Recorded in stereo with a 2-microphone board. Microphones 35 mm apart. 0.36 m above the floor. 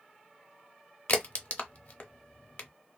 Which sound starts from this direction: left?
A crack, at 1.1 s.